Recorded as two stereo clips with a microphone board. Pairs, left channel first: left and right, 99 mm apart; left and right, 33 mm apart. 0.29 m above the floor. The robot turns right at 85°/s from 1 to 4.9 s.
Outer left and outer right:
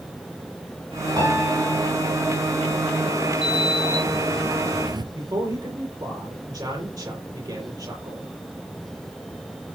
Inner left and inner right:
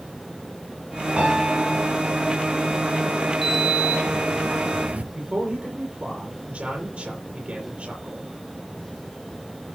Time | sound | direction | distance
1.2 | a piano | 40° right | 8 m
3.4 | a sliding door | 175° right | 1.4 m
5.1 | a man speaking | 45° right (ahead or behind) | 7.5 m